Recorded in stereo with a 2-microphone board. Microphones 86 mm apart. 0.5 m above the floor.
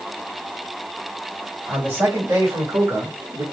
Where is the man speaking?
25° right (ahead or behind), 2.5 m; by 3.4 s 40° right (ahead or behind), 1.3 m.